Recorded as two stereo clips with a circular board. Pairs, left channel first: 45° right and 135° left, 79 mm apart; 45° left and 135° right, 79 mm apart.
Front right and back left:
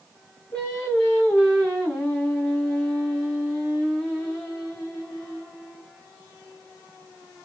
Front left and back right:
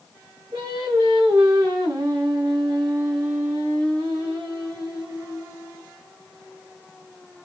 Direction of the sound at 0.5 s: 115° right.